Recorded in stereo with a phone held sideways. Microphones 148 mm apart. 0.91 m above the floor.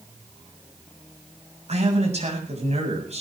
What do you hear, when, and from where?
1.7 s a man speaking: 50° right (ahead or behind), 7 m